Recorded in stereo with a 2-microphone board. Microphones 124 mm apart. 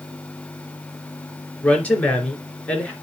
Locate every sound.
1.6 s a woman speaking: 10° left (ahead or behind), 3 m